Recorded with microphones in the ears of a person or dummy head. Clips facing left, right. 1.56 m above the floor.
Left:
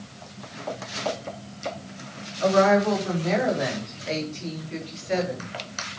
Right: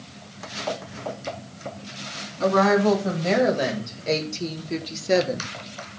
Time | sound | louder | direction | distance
2.4 | a woman speaking | even | 65° right (ahead or behind) | 3 m